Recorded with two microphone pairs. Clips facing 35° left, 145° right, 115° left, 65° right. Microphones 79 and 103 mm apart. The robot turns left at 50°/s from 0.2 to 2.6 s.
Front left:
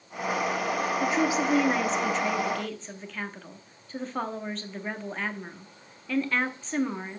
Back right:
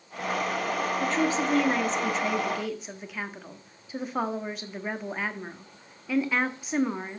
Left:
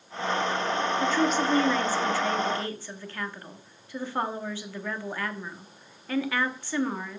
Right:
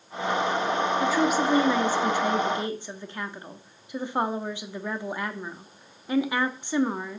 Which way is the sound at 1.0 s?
5° left.